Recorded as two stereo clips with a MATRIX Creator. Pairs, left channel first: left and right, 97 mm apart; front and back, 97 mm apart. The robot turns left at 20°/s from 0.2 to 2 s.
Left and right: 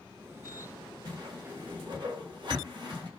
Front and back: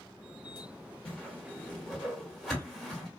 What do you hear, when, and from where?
1.1 s a whoosh: 70° right, 1.4 m; by 3.1 s 90° right, 1.4 m